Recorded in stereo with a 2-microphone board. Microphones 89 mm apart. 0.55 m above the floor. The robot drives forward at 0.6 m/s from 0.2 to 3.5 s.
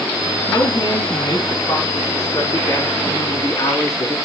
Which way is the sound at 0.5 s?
55° left (ahead or behind).